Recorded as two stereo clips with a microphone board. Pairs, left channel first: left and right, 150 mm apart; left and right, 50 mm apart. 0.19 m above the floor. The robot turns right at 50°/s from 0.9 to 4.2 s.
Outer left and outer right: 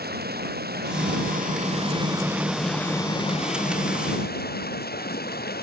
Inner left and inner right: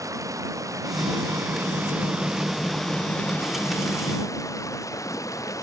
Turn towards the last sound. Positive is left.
turn(degrees=80)